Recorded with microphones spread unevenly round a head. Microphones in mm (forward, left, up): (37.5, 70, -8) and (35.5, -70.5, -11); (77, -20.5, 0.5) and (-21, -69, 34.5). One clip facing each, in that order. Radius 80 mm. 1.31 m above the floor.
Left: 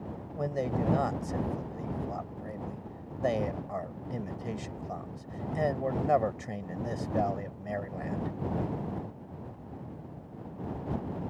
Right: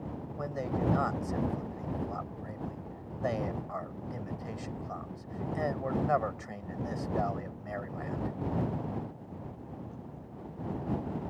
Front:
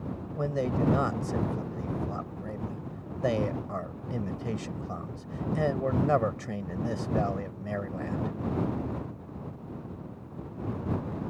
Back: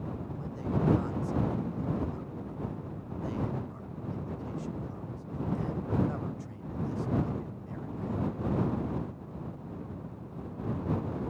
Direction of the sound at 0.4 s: 25° left.